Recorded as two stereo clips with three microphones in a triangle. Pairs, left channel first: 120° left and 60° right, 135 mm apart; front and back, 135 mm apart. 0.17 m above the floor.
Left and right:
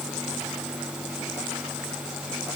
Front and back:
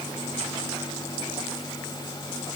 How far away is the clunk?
I don't hear a clunk.